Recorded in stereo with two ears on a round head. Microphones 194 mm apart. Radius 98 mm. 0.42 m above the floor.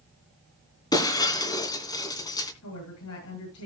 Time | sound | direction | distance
0.9 | breaking glass | 20° left (ahead or behind) | 2.5 m
2.6 | a woman speaking | 75° left (ahead or behind) | 8 m